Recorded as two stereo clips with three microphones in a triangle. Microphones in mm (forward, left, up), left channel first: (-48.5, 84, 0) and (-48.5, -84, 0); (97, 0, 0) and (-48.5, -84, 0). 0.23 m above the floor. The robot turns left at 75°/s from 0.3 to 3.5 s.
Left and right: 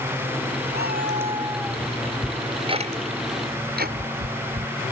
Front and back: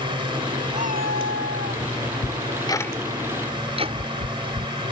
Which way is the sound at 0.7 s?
105° right.